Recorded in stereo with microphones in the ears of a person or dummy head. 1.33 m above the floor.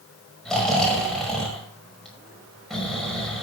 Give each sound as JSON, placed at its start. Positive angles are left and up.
{"t": 0.5, "sound": "snoring", "side_deg": 5, "distance_m": 5.0}